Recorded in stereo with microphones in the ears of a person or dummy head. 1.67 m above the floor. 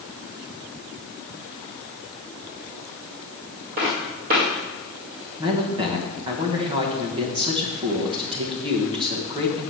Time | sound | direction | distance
3.8 | footsteps | 35° right (ahead or behind) | 2.5 m
5.4 | a man speaking | 25° right (ahead or behind) | 1.2 m